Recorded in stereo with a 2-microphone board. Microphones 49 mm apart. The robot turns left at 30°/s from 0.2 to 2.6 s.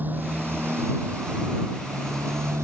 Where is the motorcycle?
35° right; by 2.6 s 110° right.